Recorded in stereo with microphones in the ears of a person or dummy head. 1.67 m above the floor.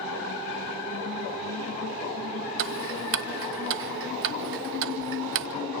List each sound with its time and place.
2.6 s ticking: 70° right (ahead or behind), 1.0 m